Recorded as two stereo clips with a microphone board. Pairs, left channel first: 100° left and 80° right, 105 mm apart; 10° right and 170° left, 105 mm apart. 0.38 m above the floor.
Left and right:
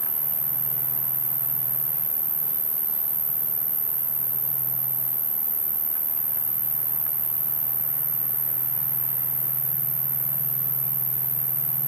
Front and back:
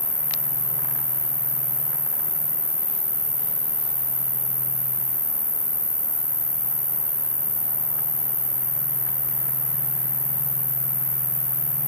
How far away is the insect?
About 0.8 m.